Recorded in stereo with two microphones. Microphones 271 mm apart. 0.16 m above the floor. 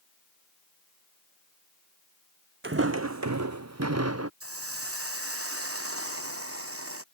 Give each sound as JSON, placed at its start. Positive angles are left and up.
{"t": 2.6, "sound": "footsteps", "side_deg": -45}
{"t": 4.4, "sound": "a hiss", "side_deg": -55}